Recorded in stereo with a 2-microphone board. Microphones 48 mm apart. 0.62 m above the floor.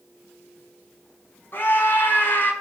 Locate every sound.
1.5 s a scream: 45° left (ahead or behind), 5 m